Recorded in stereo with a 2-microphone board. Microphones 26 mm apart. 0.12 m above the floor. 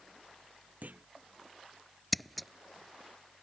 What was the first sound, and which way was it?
A clunk, 75° right (ahead or behind).